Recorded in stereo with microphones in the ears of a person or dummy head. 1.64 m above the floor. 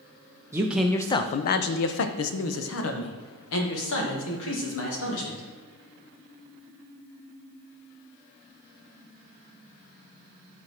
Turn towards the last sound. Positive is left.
turn(degrees=80)